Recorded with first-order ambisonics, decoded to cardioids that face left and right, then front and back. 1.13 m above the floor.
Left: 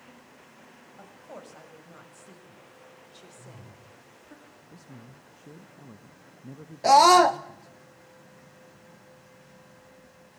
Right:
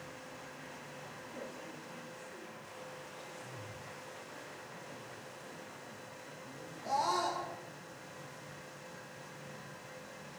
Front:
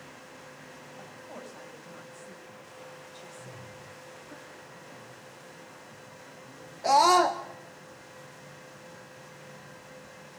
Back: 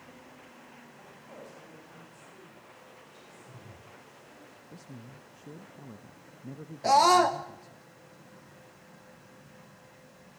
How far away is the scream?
About 0.6 m.